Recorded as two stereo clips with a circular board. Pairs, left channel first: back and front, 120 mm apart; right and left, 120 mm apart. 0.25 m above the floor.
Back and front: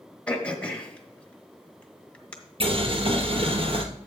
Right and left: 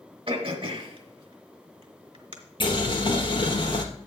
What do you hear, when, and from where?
0.3 s throat clearing: 105° left, 1.6 m
2.6 s boiling: 40° right, 1.4 m